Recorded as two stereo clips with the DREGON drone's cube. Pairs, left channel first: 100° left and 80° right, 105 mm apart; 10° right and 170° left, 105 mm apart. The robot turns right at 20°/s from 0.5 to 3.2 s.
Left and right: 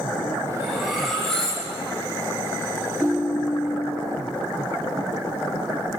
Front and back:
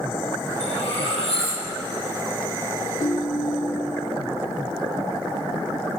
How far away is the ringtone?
About 1.2 m.